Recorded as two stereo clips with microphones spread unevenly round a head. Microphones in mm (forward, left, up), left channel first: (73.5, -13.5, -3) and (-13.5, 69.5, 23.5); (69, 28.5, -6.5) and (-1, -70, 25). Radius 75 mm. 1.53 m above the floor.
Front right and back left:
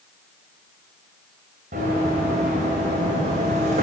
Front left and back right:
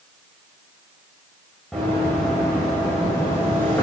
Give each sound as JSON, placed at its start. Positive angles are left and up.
{"t": 1.7, "sound": "running footsteps", "azimuth_deg": 150, "distance_m": 5.5}